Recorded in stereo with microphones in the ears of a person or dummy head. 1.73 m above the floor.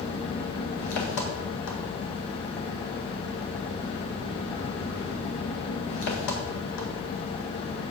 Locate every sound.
0.0 s an engine running: 60° left (ahead or behind), 1.8 m